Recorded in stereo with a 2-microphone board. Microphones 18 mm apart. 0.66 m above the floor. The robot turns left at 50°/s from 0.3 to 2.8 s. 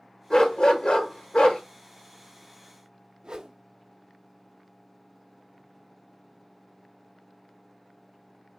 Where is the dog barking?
135° left, 1.0 m; by 1.6 s 70° left, 1.0 m.